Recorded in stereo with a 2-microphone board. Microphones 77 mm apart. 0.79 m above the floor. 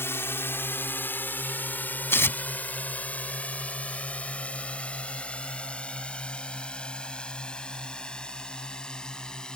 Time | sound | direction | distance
0.0 | a drone | 30° left (ahead or behind) | ?
2.1 | tearing paper | 30° left (ahead or behind) | ?